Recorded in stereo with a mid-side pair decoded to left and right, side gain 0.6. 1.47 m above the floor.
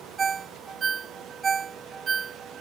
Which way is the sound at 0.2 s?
35° right.